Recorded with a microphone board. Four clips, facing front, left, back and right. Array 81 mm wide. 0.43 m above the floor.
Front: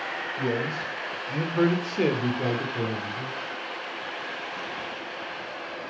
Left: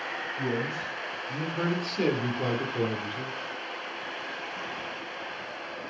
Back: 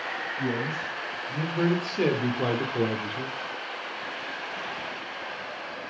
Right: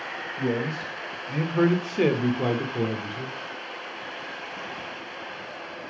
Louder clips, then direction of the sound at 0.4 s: Right 4 dB, front 2 dB; 45° right.